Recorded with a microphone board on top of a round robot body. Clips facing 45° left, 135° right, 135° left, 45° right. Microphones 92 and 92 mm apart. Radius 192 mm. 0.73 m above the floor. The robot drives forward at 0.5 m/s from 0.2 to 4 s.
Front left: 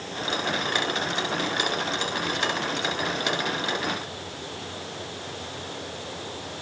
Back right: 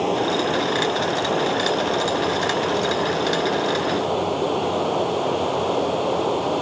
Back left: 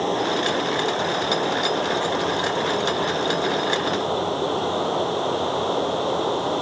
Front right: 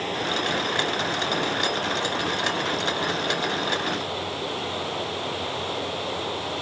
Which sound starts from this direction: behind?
Running water, at 0.0 s.